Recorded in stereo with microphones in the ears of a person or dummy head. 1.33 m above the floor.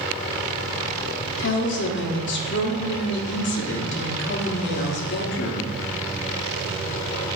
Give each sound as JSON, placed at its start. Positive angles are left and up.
{"t": 1.4, "sound": "a woman speaking", "side_deg": 60, "distance_m": 0.7}